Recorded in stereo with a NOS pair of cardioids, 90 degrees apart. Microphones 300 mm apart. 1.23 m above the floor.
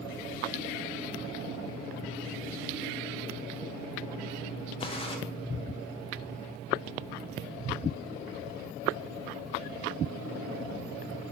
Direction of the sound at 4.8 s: 20° left.